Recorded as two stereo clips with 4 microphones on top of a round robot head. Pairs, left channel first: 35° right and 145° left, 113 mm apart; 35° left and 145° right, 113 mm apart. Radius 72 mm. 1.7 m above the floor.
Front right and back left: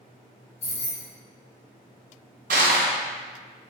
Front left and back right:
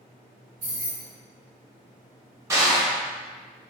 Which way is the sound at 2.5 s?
155° left.